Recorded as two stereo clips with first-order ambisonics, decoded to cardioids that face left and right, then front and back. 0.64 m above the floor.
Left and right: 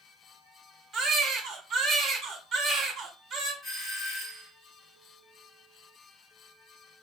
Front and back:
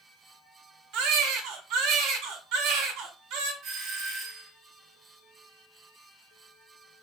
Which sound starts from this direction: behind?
A doorbell, at 3.6 s.